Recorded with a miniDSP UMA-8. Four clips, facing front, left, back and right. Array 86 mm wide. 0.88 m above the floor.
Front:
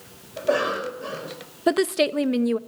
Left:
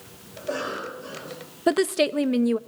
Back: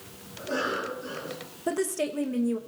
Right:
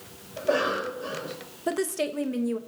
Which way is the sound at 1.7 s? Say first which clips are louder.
Left 6 dB, front 8 dB; 35° left.